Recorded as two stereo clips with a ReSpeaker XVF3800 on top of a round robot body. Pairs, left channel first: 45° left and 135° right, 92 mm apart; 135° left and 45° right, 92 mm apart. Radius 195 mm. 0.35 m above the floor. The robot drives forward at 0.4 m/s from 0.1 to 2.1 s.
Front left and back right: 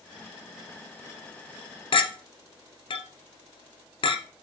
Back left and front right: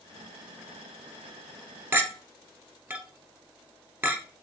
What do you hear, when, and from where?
1.9 s a clink: 25° left, 0.8 m